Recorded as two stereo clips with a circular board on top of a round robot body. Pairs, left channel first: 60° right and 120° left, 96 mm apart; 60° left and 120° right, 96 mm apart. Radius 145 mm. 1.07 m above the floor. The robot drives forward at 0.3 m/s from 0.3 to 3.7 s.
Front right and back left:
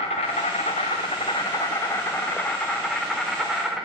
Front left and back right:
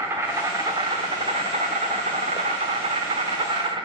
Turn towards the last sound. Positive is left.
turn(degrees=-155)